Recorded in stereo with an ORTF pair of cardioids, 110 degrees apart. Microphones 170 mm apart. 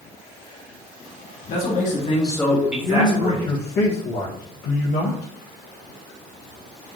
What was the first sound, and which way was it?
A man speaking, 65° left.